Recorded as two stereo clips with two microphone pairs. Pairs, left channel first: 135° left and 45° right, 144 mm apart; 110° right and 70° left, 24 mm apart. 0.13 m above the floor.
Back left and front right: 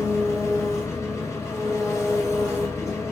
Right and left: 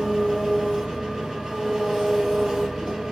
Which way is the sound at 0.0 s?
100° left.